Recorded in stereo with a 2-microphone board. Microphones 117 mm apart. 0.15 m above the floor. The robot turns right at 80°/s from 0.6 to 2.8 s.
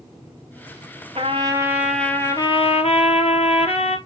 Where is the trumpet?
60° right, 1.2 m; by 4.0 s 70° left, 1.2 m.